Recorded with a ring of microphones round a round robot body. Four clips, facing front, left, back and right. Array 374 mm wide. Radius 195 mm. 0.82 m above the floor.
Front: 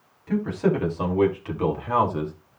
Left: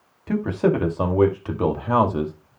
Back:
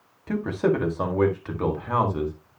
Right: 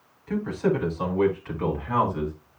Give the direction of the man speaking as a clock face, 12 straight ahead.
8 o'clock.